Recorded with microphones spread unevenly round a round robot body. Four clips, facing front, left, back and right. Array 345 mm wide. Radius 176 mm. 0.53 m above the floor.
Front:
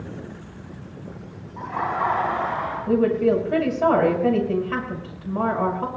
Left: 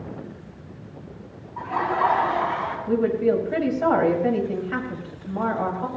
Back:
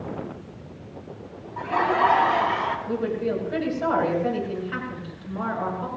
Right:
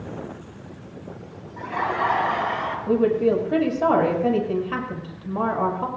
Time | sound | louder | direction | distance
1.6 | laughter | left 2 dB, back 4 dB | 155° right | 7.5 m
2.9 | a woman speaking | right 2 dB, front 7 dB | 65° right | 6.5 m